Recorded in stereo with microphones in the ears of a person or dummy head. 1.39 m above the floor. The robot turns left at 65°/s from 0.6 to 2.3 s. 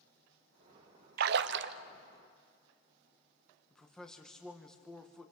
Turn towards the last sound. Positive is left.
turn(degrees=0)  # may be behind; listen again after turning